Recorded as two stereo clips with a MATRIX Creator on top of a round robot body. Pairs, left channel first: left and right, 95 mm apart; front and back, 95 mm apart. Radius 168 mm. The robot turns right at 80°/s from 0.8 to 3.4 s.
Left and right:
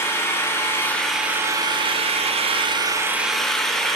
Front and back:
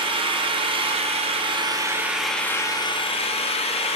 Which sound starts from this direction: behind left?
An engine running, at 0.0 s.